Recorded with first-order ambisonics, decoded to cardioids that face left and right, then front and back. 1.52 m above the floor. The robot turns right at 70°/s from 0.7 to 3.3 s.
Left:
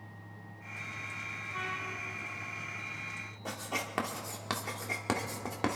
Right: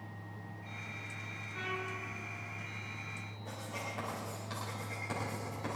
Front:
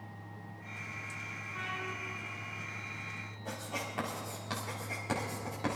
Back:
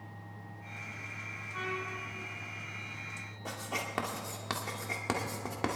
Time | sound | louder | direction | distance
1.5 | a trumpet | left 1 dB, back 2 dB | 90° left | 6.5 m
3.5 | writing | left 6 dB, back 3 dB | 120° left | 2 m